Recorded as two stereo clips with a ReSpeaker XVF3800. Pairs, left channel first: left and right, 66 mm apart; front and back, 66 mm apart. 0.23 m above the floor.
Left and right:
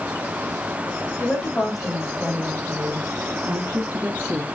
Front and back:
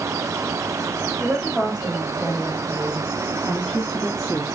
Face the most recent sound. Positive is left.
turn(degrees=-45)